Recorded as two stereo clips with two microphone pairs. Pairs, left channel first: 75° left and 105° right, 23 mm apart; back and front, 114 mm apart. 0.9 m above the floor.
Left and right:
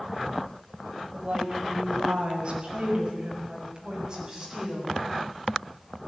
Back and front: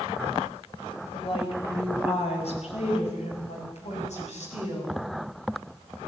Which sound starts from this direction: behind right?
A woman speaking, at 1.1 s.